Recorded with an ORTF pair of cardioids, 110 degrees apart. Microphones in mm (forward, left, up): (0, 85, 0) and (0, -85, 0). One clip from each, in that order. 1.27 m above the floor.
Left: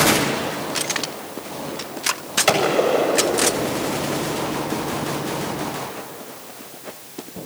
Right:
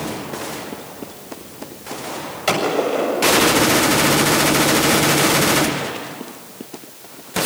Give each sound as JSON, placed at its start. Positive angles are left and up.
{"t": 2.5, "sound": "a gunshot", "azimuth_deg": 15, "distance_m": 7.5}